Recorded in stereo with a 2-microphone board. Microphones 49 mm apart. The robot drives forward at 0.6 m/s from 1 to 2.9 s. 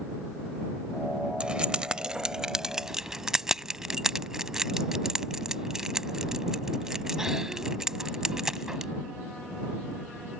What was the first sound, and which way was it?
Keys jangling, 20° right (ahead or behind).